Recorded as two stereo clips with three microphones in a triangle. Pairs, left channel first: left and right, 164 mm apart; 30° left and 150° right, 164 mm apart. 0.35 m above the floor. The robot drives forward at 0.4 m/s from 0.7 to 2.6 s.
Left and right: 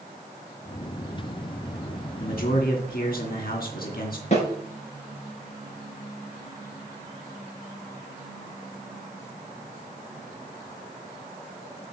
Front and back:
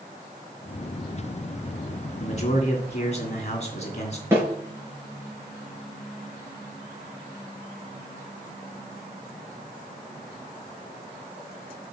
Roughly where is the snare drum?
Behind left.